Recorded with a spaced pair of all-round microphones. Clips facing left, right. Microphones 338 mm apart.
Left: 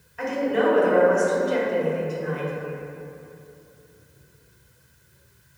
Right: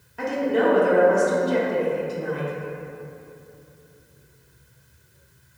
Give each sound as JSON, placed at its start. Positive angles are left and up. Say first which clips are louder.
{"t": 0.2, "sound": "a woman speaking", "louder": "right 1 dB", "side_deg": -50, "distance_m": 0.6}